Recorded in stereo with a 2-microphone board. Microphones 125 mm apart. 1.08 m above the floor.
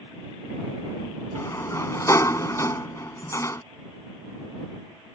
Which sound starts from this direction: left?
A sliding door, at 1.4 s.